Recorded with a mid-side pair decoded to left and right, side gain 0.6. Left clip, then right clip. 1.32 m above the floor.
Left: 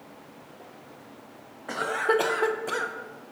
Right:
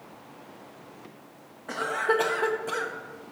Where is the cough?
15° left, 0.8 m.